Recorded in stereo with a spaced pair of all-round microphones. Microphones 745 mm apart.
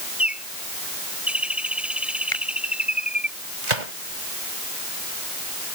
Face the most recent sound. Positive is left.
turn(degrees=-70)  # may be behind; listen again after turning